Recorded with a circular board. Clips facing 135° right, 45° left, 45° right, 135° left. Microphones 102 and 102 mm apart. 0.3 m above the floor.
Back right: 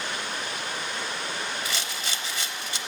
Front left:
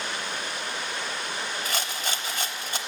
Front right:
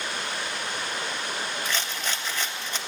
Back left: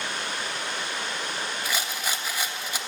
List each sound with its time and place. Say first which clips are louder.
1.6 s a rattle: front left 2 dB, even; 60° left, 0.5 m